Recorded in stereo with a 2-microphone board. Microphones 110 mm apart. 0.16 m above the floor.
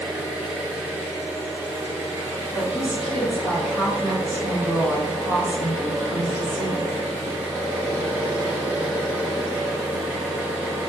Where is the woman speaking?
Centre (ahead or behind), 1.4 m.